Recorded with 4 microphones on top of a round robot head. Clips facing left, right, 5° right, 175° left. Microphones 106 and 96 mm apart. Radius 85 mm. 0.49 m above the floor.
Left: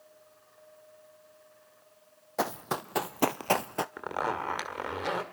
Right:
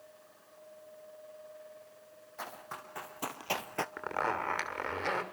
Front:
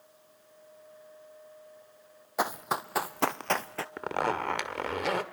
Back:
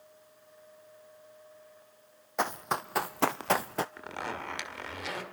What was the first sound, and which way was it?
Running footsteps, 80° left.